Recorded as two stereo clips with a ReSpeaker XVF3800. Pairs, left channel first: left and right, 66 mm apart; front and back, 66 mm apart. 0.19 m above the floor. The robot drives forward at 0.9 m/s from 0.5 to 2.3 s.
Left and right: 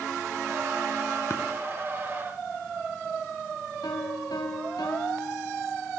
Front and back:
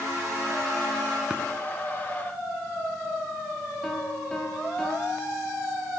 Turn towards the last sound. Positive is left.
turn(degrees=85)